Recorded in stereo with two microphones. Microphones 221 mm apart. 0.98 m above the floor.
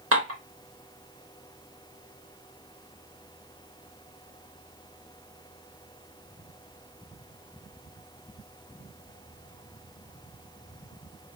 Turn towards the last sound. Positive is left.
turn(degrees=-85)